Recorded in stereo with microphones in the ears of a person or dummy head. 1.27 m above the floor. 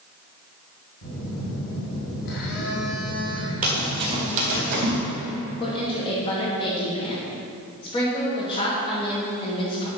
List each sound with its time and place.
1.0 s a phone buzzing: 65° left (ahead or behind), 2 m
3.6 s running footsteps: 10° right (ahead or behind), 1.3 m; by 5.0 s 50° right (ahead or behind), 3 m
5.6 s a woman speaking: 25° left (ahead or behind), 1.5 m